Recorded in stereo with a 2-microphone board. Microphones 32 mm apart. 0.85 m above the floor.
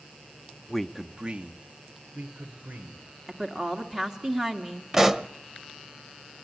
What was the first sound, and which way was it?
A man speaking, 10° left (ahead or behind).